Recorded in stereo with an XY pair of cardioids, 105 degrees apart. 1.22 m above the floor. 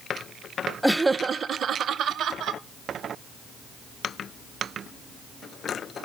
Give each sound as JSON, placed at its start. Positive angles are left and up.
{"t": 0.8, "sound": "laughter", "azimuth_deg": 0, "distance_m": 0.5}